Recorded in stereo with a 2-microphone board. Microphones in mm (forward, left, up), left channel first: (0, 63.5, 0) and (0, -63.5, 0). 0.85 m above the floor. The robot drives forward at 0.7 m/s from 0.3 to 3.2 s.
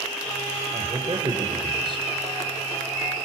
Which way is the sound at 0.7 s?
35° right (ahead or behind).